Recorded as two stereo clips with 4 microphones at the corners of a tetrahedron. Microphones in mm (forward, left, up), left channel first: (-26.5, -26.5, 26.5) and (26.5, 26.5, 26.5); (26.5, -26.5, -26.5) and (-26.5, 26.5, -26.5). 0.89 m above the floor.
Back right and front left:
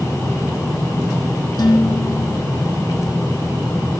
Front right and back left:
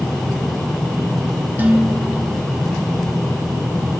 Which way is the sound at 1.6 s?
160° right.